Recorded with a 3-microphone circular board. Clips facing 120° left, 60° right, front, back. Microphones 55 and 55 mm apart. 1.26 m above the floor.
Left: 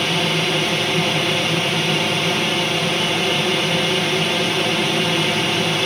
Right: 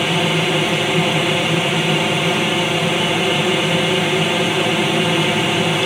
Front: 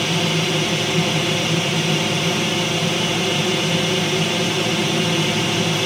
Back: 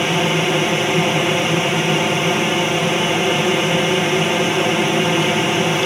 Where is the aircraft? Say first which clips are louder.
Right 2 dB, back 3 dB; 130° right.